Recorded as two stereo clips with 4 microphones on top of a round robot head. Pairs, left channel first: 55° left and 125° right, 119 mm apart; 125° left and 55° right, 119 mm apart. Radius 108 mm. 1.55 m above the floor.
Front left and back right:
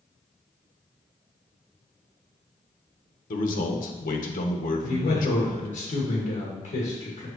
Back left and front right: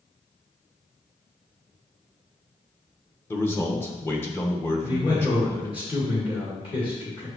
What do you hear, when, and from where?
3.3 s a man speaking: 55° left, 0.9 m
4.8 s a man speaking: 75° left, 1.8 m